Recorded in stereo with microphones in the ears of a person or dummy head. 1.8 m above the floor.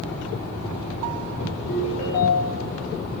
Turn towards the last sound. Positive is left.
turn(degrees=30)  # may be behind; listen again after turning